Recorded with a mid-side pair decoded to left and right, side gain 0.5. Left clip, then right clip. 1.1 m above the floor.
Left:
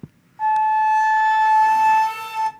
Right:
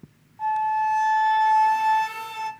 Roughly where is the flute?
Ahead left.